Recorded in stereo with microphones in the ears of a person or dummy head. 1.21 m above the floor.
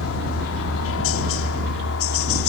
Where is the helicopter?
65° left (ahead or behind); by 2.5 s 70° left (ahead or behind).